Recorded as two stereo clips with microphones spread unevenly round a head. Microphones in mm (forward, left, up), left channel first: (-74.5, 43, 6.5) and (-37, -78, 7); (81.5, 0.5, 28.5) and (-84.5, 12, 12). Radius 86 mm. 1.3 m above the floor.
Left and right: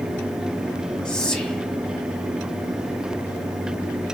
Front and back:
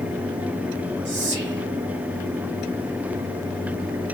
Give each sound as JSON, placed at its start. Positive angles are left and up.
{"t": 1.1, "sound": "whispering", "azimuth_deg": -170, "distance_m": 1.0}